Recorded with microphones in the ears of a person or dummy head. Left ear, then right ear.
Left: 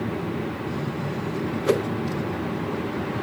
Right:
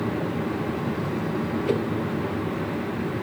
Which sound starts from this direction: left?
A whoosh, at 1.6 s.